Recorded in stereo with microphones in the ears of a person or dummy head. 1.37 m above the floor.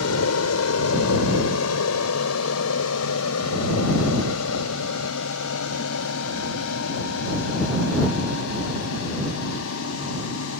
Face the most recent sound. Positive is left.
turn(degrees=80)